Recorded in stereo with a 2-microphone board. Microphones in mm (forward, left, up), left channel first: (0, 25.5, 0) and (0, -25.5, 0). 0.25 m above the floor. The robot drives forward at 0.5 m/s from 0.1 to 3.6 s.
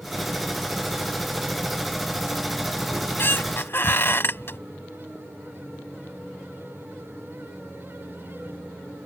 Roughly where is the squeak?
Left.